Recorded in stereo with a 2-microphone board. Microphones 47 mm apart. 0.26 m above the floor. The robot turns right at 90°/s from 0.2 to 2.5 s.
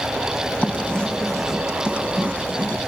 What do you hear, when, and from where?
0.6 s writing: 30° left (ahead or behind), 1.6 m; by 2.8 s 30° right (ahead or behind), 1.6 m